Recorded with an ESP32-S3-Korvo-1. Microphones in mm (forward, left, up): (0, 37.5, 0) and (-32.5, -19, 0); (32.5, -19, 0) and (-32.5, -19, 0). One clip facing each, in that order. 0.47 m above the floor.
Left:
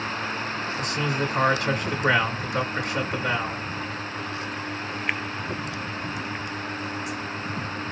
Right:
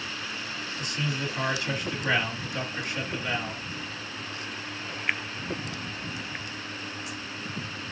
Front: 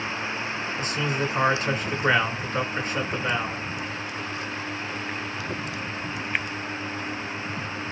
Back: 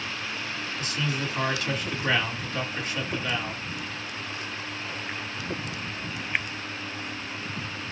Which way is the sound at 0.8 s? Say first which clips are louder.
Left 5 dB, front 3 dB; 60° left.